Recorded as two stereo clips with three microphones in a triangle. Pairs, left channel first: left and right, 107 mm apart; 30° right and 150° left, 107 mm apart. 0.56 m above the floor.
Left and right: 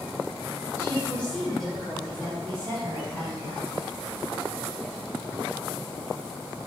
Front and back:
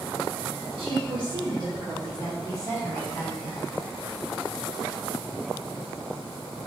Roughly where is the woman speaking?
Behind left.